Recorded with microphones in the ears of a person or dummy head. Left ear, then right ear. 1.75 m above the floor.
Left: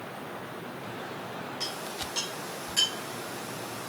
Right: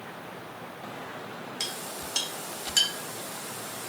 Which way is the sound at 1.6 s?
45° right (ahead or behind).